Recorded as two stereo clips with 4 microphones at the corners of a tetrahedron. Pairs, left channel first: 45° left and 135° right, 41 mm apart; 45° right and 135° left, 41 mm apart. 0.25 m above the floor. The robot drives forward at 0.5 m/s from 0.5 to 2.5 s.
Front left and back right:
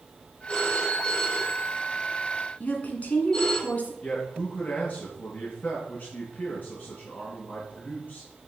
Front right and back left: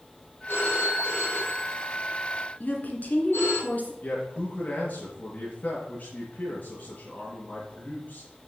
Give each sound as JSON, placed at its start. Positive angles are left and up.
{"t": 0.5, "sound": "a phone ringing", "azimuth_deg": -25, "distance_m": 5.0}
{"t": 2.6, "sound": "a woman speaking", "azimuth_deg": -5, "distance_m": 2.5}
{"t": 4.0, "sound": "a man speaking", "azimuth_deg": -5, "distance_m": 3.0}